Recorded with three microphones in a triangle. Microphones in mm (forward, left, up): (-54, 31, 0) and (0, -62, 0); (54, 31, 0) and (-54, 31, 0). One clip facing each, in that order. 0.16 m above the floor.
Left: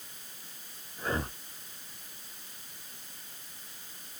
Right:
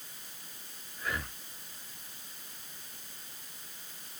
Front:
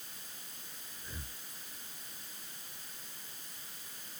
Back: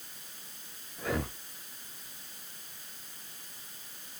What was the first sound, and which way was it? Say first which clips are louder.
Breathing: left 4 dB, back 19 dB; 175° left.